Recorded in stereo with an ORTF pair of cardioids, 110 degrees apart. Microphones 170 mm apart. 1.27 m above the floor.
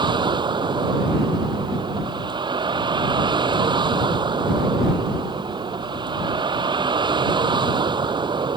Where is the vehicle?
25° right.